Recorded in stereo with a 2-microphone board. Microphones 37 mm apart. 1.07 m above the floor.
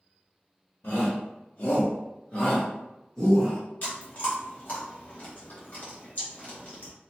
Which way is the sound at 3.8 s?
40° left (ahead or behind).